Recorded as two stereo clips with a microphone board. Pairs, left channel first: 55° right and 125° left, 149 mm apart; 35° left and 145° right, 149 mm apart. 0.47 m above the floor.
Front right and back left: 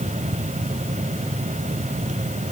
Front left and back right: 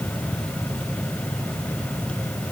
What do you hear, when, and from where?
Only background noise.